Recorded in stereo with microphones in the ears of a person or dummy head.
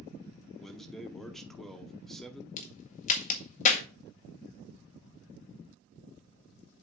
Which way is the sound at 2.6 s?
40° left (ahead or behind).